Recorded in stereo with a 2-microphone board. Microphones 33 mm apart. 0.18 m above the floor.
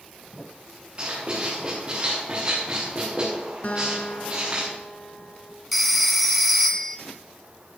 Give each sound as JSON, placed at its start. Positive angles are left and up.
{"t": 1.0, "sound": "writing", "side_deg": -40, "distance_m": 5.5}
{"t": 3.6, "sound": "a guitar", "side_deg": 50, "distance_m": 1.4}
{"t": 5.7, "sound": "a phone ringing", "side_deg": 0, "distance_m": 1.1}